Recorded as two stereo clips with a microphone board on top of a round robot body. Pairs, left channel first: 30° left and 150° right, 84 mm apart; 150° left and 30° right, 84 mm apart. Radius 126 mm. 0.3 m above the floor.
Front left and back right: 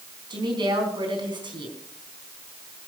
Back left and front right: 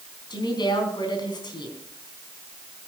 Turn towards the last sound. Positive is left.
turn(degrees=180)